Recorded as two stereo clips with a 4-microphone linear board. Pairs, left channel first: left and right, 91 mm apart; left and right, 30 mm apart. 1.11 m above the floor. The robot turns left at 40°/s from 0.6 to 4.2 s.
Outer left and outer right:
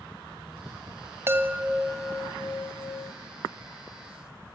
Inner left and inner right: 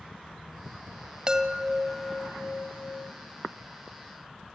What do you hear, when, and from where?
1.3 s a chime: 150° right, 1.5 m; by 3.1 s 135° left, 1.5 m